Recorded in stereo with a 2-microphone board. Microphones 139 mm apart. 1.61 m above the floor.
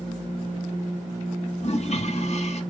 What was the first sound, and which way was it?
A toilet flushing, 50° left (ahead or behind).